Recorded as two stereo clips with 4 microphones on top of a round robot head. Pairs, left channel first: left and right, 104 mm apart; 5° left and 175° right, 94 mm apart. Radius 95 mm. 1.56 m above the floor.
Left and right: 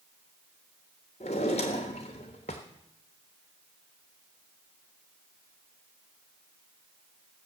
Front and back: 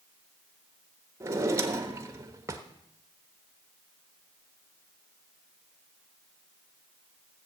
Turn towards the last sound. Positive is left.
turn(degrees=135)